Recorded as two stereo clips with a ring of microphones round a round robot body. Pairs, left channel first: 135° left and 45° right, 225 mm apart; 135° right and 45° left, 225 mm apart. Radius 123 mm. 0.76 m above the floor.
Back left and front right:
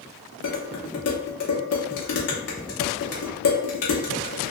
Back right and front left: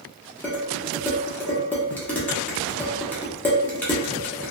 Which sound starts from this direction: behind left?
Dishes clattering, at 0.4 s.